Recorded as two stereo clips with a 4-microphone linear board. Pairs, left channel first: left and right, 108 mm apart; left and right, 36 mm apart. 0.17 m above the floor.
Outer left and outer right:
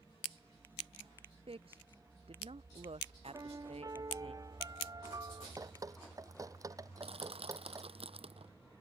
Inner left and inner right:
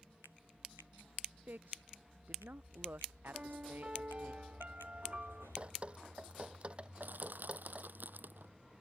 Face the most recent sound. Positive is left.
turn(degrees=-65)  # may be behind; listen again after turning